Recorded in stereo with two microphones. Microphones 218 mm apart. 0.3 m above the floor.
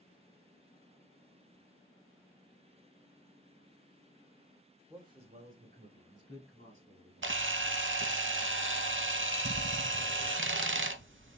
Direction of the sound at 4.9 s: 10° right (ahead or behind).